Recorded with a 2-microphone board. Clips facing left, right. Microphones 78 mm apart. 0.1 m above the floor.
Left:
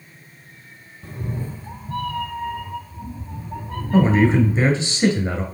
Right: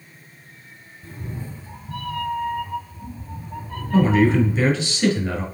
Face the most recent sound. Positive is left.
turn(degrees=20)  # may be behind; listen again after turning